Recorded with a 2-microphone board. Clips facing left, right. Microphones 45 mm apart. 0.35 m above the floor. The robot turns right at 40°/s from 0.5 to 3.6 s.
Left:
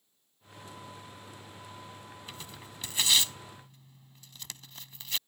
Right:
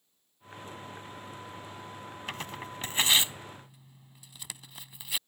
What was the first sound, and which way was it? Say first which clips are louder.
Tearing paper: right 12 dB; 60° right (ahead or behind).